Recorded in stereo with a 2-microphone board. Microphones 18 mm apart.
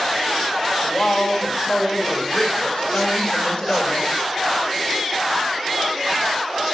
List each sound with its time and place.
0.8 s a woman speaking: 60° left (ahead or behind), 3 m